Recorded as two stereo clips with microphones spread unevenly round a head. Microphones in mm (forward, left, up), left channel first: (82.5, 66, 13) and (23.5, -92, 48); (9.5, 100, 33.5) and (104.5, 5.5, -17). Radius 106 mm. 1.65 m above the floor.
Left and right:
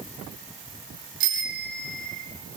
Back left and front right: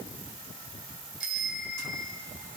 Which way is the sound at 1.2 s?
135° right.